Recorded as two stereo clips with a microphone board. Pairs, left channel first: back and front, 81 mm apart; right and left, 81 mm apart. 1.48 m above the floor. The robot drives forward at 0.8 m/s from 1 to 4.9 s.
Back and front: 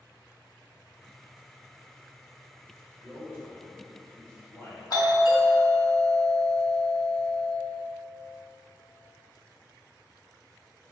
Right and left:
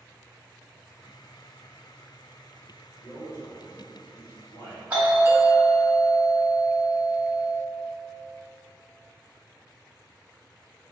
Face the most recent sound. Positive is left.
turn(degrees=160)